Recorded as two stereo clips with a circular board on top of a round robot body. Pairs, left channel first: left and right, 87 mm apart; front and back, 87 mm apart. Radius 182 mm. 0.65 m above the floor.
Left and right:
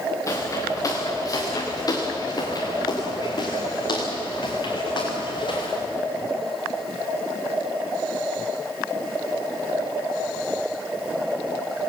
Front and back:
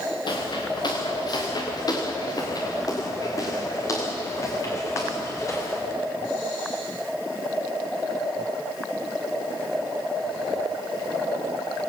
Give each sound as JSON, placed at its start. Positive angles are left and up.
{"t": 0.3, "sound": "footsteps", "azimuth_deg": 35, "distance_m": 4.5}